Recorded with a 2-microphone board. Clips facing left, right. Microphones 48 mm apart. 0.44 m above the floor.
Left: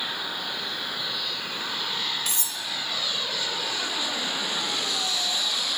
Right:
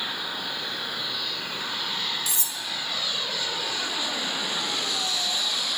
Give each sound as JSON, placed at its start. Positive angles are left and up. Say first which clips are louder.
{"t": 2.3, "sound": "cutlery clinking", "louder": "even", "side_deg": 50, "distance_m": 0.9}